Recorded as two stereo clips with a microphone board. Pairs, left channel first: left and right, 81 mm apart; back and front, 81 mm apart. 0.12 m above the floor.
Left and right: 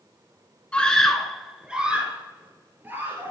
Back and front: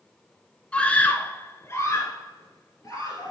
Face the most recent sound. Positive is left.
turn(degrees=-145)